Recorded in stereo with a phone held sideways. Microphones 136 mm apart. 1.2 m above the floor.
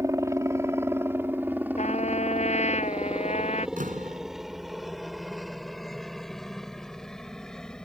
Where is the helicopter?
20° right (ahead or behind); by 7.8 s 5° left (ahead or behind).